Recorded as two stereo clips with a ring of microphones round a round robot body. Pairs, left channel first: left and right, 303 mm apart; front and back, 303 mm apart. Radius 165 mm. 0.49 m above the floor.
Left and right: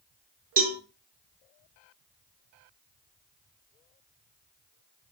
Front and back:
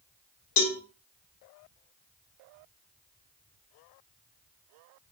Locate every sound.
0.6 s a cowbell: 25° right, 0.8 m